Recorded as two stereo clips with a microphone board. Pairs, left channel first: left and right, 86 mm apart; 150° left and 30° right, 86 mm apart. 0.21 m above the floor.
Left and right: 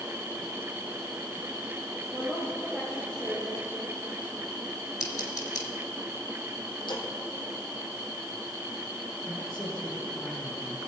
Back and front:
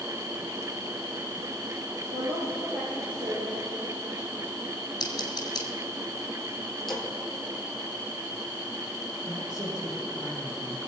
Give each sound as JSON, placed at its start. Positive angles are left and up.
{"t": 2.1, "sound": "a woman speaking", "azimuth_deg": -10, "distance_m": 4.5}
{"t": 5.0, "sound": "scissors", "azimuth_deg": 120, "distance_m": 2.5}
{"t": 6.9, "sound": "a splash", "azimuth_deg": 65, "distance_m": 2.5}
{"t": 9.3, "sound": "a man speaking", "azimuth_deg": 0, "distance_m": 4.5}